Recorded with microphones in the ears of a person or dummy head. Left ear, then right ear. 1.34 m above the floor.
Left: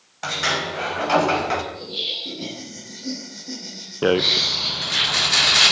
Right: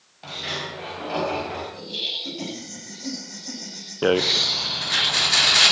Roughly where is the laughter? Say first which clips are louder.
Left 1 dB; right.